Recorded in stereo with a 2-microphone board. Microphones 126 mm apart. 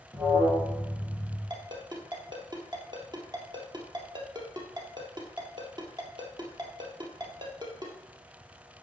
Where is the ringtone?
35° right (ahead or behind), 1.9 m.